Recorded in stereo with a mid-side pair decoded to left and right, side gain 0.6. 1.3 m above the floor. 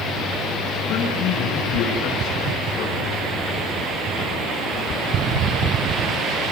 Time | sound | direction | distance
0.9 | a man speaking | 65° left | 6 m